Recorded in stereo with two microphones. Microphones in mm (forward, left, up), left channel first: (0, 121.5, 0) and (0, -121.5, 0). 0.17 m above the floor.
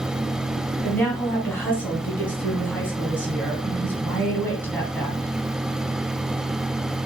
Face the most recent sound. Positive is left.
turn(degrees=10)  # may be behind; listen again after turning